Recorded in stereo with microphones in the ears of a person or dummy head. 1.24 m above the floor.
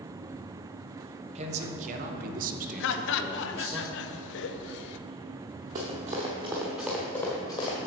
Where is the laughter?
65° left (ahead or behind), 0.8 m.